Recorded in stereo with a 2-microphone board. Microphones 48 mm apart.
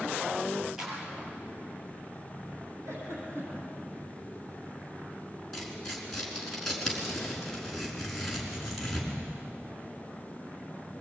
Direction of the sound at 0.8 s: 10° right (ahead or behind).